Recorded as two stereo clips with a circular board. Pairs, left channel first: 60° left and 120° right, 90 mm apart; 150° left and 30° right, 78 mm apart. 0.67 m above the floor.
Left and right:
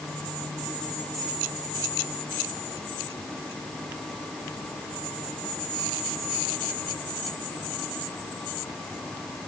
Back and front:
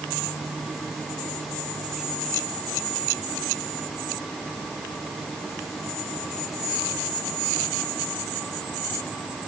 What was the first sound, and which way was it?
Only background noise.